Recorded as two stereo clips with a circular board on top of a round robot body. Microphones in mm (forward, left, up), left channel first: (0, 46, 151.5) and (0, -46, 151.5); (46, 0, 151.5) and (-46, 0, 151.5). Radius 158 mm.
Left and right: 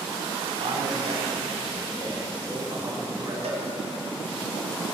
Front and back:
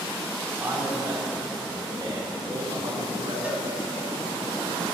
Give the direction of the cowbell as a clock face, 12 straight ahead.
3 o'clock.